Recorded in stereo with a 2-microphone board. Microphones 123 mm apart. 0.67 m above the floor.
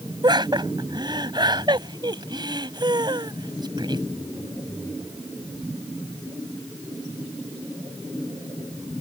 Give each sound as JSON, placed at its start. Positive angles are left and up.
{"t": 0.2, "sound": "laughter", "side_deg": -40}